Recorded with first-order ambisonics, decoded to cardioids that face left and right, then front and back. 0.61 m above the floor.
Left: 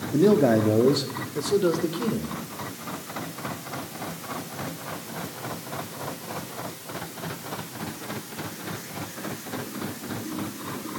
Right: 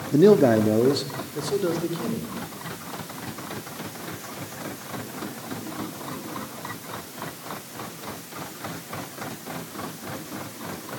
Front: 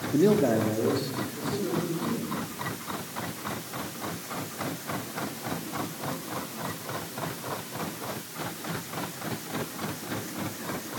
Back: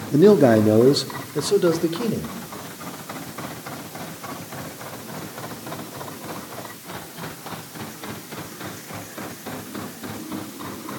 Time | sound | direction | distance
0.1 | a man speaking | 135° right | 0.9 m